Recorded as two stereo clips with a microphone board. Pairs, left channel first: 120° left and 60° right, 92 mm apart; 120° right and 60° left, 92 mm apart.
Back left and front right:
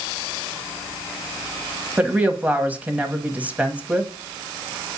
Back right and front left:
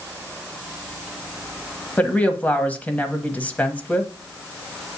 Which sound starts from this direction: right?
A woman speaking, at 2.0 s.